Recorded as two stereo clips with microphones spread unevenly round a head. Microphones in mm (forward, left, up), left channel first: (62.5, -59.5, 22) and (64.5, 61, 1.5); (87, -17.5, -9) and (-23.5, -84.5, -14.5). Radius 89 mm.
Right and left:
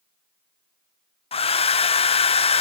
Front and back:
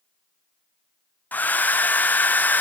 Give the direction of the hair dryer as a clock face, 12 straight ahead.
2 o'clock.